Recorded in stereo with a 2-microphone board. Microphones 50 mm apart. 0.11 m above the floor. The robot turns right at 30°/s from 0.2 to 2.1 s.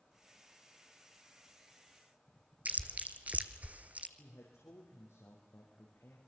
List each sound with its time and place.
2.6 s chewing: 35° right (ahead or behind), 1.0 m
4.2 s a man speaking: 75° left (ahead or behind), 4.5 m